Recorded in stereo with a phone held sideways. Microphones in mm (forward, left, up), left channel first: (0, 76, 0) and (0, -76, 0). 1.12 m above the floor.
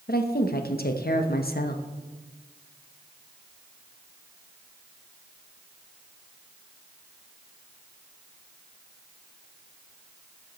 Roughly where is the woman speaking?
Left.